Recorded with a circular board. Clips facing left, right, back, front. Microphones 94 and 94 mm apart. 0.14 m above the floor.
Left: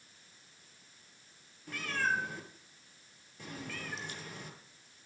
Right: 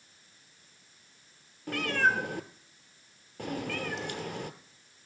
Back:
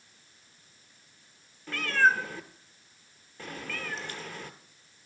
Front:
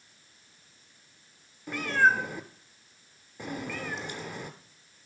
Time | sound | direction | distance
1.7 | a cat meowing | 75° right | 0.6 m